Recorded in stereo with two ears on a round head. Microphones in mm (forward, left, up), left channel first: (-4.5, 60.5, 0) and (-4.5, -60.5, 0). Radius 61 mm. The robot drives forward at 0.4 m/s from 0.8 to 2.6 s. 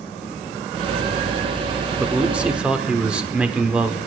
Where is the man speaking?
10° right (ahead or behind), 0.8 m; by 4.0 s 5° right (ahead or behind), 0.9 m.